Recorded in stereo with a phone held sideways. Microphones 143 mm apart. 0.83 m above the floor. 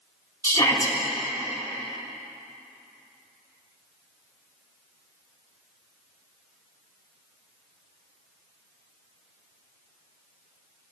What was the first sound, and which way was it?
A shout, 25° left (ahead or behind).